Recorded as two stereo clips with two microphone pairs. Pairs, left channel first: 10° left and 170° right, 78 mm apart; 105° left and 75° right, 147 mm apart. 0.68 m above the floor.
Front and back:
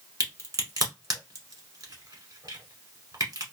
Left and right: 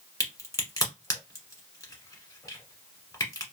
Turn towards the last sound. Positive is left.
turn(degrees=165)